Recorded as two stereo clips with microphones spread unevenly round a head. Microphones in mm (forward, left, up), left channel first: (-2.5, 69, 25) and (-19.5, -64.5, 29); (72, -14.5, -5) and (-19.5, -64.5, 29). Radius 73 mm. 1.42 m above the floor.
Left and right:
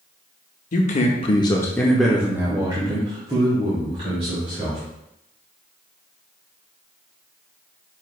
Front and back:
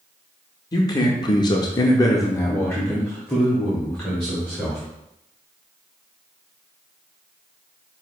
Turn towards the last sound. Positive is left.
turn(degrees=-50)